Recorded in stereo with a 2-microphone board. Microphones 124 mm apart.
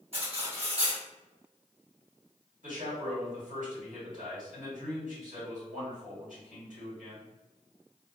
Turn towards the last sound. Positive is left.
turn(degrees=-80)